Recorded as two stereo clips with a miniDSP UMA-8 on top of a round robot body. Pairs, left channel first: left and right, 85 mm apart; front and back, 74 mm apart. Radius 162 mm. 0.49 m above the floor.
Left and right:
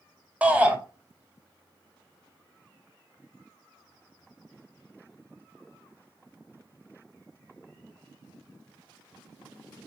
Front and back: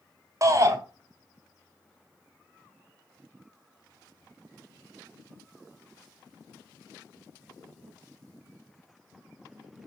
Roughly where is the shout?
Behind.